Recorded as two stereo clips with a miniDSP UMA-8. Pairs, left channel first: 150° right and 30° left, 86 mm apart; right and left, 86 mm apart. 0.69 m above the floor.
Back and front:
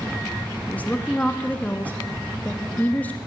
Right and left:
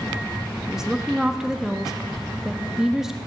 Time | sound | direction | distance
0.7 | a woman speaking | 170° left | 1.1 m